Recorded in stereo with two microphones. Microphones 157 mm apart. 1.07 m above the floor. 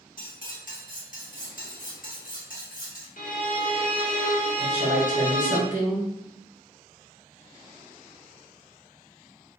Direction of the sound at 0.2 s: 60° left (ahead or behind).